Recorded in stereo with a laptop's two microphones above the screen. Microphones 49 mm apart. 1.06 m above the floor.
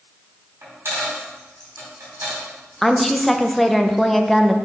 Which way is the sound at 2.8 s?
5° left (ahead or behind).